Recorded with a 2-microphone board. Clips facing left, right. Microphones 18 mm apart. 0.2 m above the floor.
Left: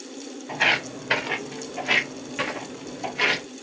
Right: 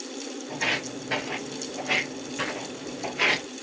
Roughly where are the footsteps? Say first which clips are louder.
Left 6 dB; left.